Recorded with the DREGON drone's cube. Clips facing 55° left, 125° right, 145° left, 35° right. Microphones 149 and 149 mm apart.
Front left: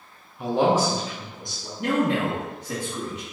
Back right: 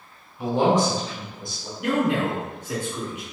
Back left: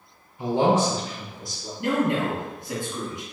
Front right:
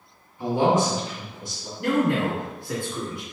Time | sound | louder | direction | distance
0.4 | a man speaking | back right 1 dB, even | 160° left | 1.3 m
1.8 | a man speaking | even, front right 1 dB | 85° left | 1.7 m